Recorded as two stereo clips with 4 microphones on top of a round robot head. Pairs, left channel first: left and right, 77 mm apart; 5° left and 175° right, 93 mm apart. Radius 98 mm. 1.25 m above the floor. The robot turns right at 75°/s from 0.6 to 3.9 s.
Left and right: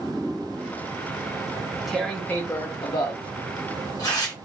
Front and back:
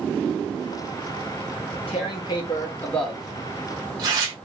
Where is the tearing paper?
25° right, 0.7 m; by 4.3 s 150° left, 0.7 m.